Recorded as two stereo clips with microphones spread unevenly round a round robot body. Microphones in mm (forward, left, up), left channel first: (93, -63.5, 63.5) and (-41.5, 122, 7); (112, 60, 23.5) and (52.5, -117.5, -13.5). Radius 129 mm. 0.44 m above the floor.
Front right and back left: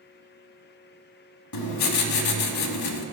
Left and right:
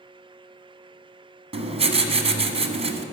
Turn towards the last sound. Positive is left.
turn(degrees=-50)